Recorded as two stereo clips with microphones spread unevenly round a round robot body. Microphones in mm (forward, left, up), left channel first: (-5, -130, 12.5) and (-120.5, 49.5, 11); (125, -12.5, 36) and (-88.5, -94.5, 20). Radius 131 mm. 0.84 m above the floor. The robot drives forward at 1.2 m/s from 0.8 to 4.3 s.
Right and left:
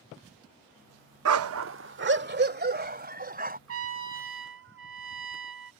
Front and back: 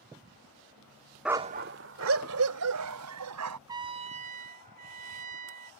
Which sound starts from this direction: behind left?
A trumpet, at 3.7 s.